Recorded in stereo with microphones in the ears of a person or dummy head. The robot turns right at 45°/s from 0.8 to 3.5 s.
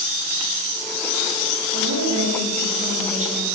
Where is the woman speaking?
105° right, 6 m; by 3.5 s 25° right, 6 m.